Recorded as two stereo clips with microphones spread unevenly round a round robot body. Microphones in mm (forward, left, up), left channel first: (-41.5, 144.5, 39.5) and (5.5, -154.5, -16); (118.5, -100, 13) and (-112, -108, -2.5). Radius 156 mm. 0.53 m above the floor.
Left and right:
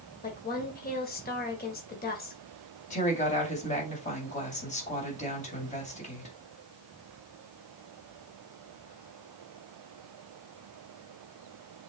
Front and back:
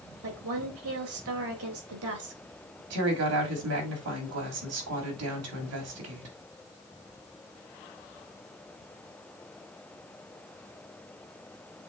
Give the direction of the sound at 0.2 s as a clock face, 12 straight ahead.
7 o'clock.